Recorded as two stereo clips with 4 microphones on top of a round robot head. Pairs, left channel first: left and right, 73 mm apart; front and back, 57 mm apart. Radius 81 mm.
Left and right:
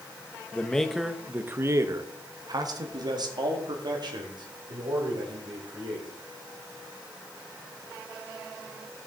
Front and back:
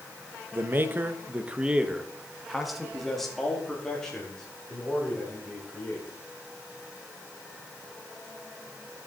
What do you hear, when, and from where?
0.5 s a man speaking: 155° left, 0.9 m; by 6.1 s 75° right, 3.5 m